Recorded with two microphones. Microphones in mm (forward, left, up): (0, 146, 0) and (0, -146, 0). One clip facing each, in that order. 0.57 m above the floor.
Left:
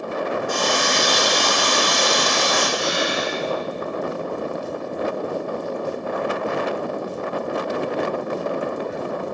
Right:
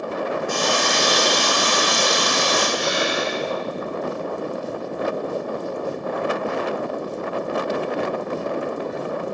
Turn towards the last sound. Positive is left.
turn(degrees=-60)  # may be behind; listen again after turning